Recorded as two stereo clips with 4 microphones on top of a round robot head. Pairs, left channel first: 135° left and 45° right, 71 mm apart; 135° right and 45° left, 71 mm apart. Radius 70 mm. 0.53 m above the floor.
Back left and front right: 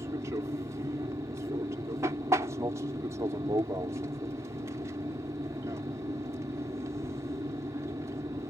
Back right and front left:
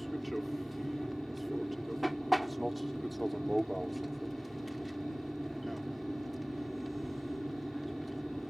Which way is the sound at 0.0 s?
45° right.